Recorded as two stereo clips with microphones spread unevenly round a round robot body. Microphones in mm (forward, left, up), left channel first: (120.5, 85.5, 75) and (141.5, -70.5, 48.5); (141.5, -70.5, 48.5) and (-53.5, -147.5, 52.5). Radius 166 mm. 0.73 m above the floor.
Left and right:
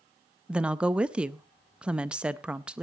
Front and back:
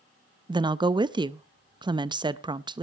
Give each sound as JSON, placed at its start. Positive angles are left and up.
{"t": 0.5, "sound": "a woman speaking", "azimuth_deg": -125, "distance_m": 0.6}